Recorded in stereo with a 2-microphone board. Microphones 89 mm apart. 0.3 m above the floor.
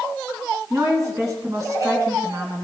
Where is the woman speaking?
35° right (ahead or behind), 2.5 m.